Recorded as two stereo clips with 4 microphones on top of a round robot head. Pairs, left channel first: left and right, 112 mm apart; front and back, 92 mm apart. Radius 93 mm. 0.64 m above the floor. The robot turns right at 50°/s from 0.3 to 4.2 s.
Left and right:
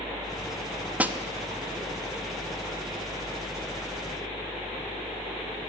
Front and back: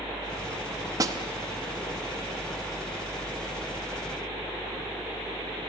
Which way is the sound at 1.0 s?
165° right.